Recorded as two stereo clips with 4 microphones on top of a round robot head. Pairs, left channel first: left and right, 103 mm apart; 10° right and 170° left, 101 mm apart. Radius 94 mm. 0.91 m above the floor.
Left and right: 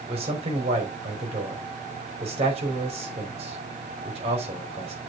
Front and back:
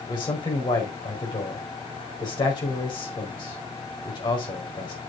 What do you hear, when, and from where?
0.1 s a man speaking: 60° right, 4.5 m